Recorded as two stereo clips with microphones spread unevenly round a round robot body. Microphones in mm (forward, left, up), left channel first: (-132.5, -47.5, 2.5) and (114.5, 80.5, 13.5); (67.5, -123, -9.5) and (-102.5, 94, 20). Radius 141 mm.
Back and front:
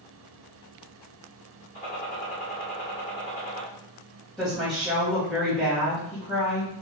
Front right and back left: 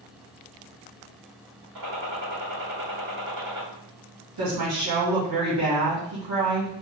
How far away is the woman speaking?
About 1.8 m.